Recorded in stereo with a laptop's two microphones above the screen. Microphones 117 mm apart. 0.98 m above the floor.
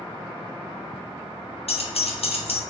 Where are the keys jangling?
65° left (ahead or behind), 0.6 m.